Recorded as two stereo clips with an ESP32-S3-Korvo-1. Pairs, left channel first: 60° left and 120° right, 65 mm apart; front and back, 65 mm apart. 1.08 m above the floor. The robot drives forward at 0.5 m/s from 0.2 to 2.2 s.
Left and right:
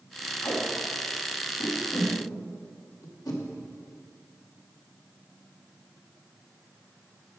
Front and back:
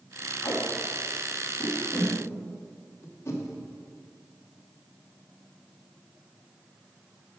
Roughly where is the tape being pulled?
Ahead left.